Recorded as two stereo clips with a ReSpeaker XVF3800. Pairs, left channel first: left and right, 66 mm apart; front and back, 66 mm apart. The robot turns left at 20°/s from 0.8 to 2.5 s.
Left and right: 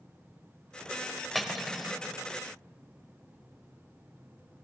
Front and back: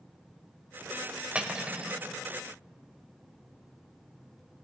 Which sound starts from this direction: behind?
Cutlery clinking, at 1.4 s.